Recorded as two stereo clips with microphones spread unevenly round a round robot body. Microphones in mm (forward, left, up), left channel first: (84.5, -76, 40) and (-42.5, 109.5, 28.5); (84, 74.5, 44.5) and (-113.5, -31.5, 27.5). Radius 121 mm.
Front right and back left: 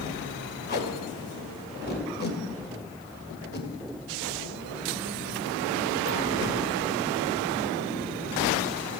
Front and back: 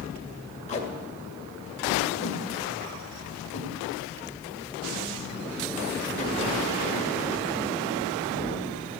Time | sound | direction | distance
0.7 | tape being pulled | 25° right | 2 m